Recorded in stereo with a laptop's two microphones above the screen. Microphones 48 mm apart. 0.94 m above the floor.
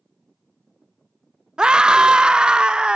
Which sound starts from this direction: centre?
A scream, at 1.6 s.